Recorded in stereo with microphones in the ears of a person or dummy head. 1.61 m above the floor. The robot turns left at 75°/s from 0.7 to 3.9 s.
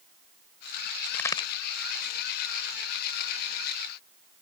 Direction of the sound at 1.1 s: 5° left (ahead or behind).